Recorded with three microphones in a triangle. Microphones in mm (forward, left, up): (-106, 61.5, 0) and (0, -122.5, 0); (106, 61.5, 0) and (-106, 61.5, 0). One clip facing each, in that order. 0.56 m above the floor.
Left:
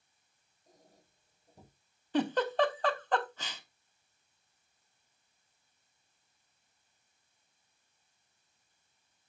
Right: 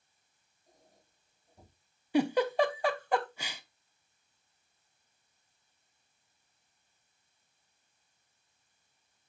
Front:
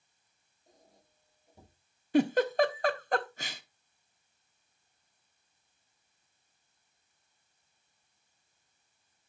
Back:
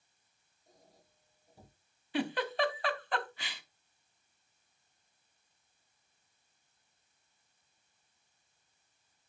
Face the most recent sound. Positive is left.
turn(degrees=15)